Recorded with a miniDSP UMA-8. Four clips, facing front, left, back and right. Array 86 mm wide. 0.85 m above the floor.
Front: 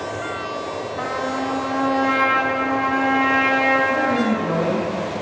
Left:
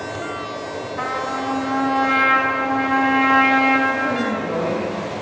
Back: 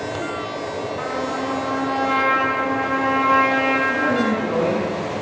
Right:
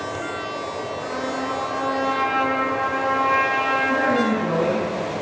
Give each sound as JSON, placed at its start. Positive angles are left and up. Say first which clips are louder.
{"t": 1.0, "sound": "a trumpet", "louder": "left 5 dB, front 2 dB", "azimuth_deg": 60, "distance_m": 5.5}
{"t": 3.9, "sound": "a man speaking", "louder": "right 2 dB, even", "azimuth_deg": -45, "distance_m": 7.0}